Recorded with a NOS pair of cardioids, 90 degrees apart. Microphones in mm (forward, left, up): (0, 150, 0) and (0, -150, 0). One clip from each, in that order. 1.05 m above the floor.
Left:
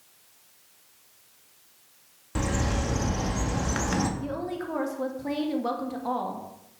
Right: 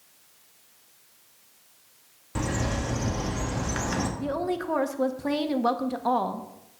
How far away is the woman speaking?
About 1.4 m.